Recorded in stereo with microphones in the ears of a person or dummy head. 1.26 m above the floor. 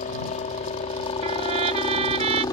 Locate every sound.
0.0 s a helicopter: 35° left (ahead or behind); by 2.5 s 20° left (ahead or behind)
1.2 s a trumpet: 30° right (ahead or behind)